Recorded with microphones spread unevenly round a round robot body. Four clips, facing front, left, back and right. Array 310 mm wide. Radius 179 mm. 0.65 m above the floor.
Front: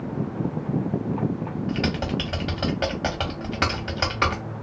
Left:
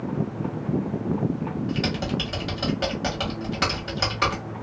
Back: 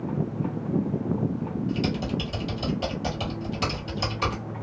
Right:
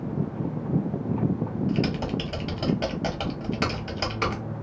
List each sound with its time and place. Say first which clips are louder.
1.7 s typing on a keyboard: right 1 dB, front 3 dB; 10° left, 1.2 m